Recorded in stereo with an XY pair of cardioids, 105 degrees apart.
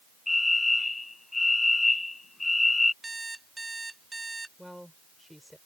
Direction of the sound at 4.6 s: 5° left.